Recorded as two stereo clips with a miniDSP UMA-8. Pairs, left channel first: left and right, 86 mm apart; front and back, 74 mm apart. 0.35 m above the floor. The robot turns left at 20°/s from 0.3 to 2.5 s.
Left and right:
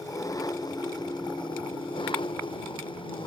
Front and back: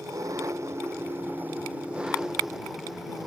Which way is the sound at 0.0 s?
135° left.